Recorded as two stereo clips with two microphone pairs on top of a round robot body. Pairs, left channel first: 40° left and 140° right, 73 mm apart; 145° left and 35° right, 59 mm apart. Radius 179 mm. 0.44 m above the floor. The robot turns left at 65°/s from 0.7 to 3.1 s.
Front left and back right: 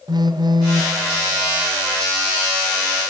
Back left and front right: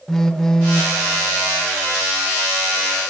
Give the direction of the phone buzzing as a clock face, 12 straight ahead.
4 o'clock.